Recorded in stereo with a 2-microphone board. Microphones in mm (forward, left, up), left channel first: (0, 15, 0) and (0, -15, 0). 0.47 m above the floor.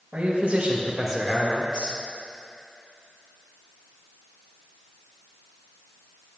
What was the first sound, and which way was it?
A man speaking, 50° right (ahead or behind).